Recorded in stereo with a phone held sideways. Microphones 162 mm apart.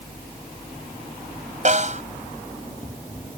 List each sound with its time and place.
1.6 s a snare drum: 50° right (ahead or behind)